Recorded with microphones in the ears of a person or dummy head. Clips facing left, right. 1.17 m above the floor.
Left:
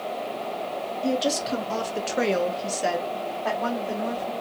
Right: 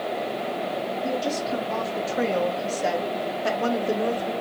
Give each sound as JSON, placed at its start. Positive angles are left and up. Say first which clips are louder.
{"t": 1.0, "sound": "a woman speaking", "louder": "left 4 dB", "side_deg": 45, "distance_m": 1.3}